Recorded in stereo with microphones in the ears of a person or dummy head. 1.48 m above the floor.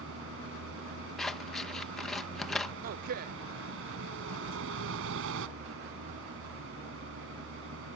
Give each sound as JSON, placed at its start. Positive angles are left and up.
{"t": 0.0, "sound": "a vehicle", "side_deg": -75}
{"t": 1.2, "sound": "scissors", "side_deg": 5}
{"t": 2.8, "sound": "a man speaking", "side_deg": -40}